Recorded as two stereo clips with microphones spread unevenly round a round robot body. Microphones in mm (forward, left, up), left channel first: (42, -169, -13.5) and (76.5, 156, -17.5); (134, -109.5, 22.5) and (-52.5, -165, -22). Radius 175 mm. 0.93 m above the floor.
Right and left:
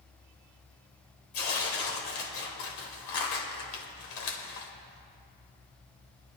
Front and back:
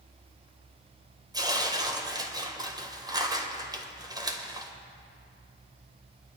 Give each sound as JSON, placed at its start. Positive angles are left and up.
{"t": 1.3, "sound": "tearing paper", "azimuth_deg": -90, "distance_m": 1.5}